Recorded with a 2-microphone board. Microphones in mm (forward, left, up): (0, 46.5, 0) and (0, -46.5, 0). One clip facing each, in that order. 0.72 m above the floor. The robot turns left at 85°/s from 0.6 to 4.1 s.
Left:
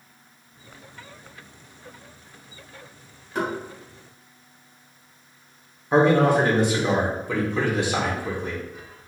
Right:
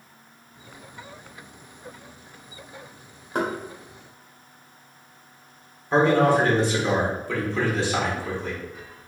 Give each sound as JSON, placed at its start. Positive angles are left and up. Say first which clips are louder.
{"t": 3.4, "sound": "knocking", "louder": "right 1 dB", "side_deg": -55, "distance_m": 1.2}
{"t": 5.9, "sound": "a man speaking", "louder": "left 1 dB", "side_deg": 15, "distance_m": 1.1}